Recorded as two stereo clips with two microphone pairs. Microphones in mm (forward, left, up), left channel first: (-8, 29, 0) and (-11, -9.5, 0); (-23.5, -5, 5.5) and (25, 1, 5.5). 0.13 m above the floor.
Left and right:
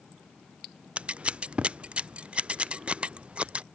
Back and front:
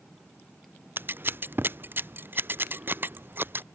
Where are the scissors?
35° right.